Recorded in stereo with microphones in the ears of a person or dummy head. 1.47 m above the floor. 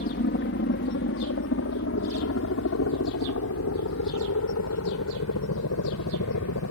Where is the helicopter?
50° left (ahead or behind); by 6.7 s 80° left.